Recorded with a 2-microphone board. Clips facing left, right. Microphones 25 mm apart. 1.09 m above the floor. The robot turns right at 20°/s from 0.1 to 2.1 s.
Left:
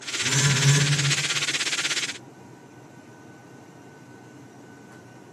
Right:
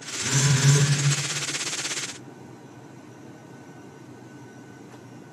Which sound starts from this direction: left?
A phone buzzing, at 0.2 s.